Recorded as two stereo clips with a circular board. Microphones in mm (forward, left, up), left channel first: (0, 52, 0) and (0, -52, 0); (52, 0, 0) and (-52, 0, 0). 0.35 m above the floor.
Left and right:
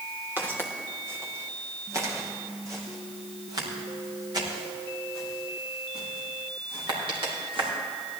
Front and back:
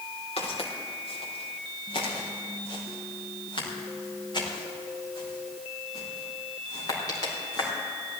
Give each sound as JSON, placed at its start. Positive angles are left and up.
{"t": 0.4, "sound": "footsteps", "azimuth_deg": -20, "distance_m": 4.5}